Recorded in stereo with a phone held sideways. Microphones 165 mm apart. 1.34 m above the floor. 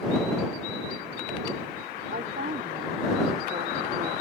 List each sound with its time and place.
2.1 s a woman speaking: 60° right (ahead or behind)